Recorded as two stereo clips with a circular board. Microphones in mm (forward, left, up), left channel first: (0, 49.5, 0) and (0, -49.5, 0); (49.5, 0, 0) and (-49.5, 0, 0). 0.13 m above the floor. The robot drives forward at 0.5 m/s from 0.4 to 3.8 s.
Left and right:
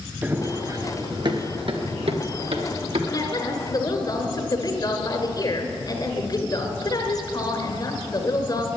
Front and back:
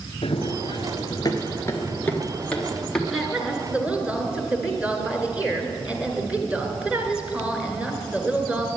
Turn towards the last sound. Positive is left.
turn(degrees=110)